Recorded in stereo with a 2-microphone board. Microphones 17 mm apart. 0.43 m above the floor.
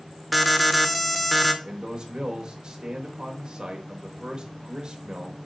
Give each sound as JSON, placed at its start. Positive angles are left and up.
{"t": 0.3, "sound": "an alarm", "side_deg": 0, "distance_m": 0.6}
{"t": 1.6, "sound": "a man speaking", "side_deg": -50, "distance_m": 1.1}